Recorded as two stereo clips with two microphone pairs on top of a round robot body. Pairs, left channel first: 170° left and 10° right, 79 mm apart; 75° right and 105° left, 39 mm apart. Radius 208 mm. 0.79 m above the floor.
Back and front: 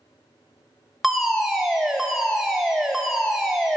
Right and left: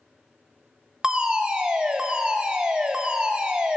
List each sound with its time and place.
1.0 s a fire alarm: 55° left, 1.5 m